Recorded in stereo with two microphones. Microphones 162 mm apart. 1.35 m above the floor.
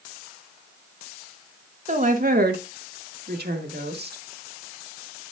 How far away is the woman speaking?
About 1.3 m.